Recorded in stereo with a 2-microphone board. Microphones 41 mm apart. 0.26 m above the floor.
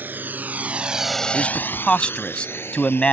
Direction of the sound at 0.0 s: 50° right (ahead or behind).